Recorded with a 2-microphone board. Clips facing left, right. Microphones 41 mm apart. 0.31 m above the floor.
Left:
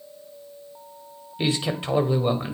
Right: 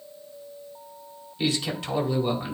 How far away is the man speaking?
About 1.4 m.